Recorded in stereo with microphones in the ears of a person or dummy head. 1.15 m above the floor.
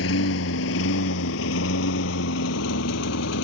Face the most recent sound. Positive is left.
turn(degrees=70)  # may be behind; listen again after turning